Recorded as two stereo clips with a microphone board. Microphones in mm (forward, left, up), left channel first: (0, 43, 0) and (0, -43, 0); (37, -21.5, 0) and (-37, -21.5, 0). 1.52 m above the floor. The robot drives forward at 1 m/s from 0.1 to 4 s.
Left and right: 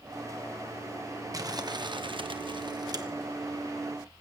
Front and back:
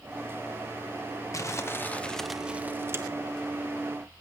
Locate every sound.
1.3 s crumpling: 45° right, 1.3 m; by 3.0 s 130° right, 1.2 m